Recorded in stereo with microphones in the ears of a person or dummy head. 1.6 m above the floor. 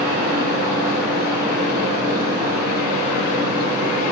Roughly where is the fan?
Right.